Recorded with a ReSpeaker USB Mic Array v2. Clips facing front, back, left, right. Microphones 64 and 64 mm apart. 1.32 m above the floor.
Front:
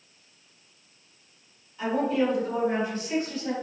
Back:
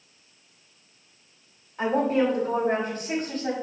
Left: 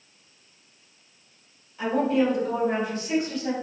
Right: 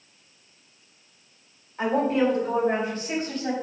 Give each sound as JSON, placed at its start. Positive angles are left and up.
{"t": 1.8, "sound": "a woman speaking", "azimuth_deg": -140, "distance_m": 2.5}